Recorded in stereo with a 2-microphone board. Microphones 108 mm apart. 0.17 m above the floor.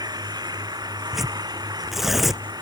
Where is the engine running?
40° right (ahead or behind).